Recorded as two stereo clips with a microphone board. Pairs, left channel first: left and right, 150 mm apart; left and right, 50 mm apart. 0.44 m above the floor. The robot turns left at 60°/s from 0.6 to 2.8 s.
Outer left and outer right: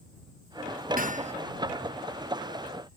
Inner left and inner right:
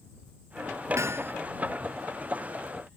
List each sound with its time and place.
1.0 s hammering: 70° right (ahead or behind); by 1.3 s 45° right (ahead or behind)